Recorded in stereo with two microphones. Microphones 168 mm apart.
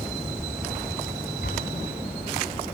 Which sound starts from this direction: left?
An explosion, at 1.4 s.